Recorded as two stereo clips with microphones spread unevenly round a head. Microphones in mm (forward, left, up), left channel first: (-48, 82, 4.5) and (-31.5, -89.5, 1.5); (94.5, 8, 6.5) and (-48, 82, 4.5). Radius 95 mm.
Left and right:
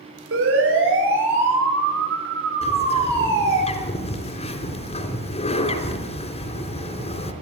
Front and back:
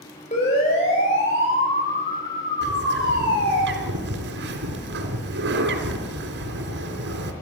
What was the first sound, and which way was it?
A siren, 85° right.